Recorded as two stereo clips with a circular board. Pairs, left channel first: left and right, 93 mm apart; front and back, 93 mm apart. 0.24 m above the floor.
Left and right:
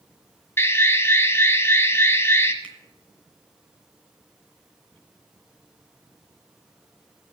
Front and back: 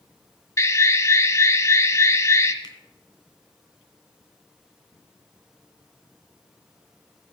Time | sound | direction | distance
0.6 | an alarm | 40° left | 1.2 m
2.6 | a finger snap | 20° left | 2 m